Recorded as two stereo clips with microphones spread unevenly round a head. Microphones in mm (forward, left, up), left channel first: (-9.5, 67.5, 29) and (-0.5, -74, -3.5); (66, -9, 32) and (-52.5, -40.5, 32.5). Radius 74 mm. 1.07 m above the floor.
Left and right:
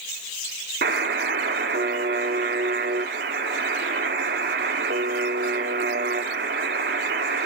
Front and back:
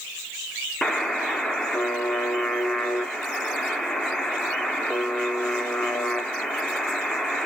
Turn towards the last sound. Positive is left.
turn(degrees=-70)